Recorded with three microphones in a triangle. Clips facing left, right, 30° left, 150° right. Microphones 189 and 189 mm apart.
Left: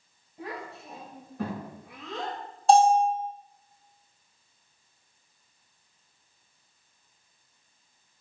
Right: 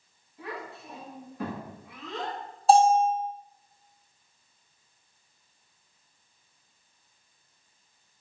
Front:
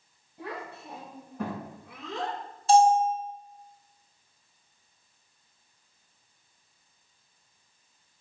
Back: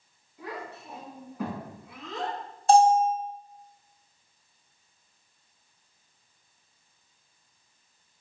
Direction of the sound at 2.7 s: 175° right.